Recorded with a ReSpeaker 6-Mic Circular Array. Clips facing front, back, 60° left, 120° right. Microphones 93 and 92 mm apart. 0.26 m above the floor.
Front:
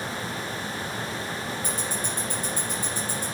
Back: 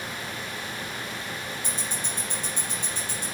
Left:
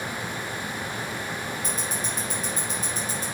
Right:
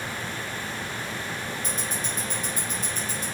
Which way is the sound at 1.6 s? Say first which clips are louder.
Front 3 dB, left 1 dB; 115° left.